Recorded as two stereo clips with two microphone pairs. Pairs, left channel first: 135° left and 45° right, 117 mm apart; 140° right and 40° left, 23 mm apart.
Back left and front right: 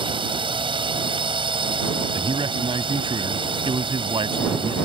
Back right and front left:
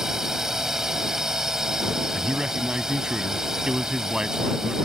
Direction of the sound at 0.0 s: 20° right.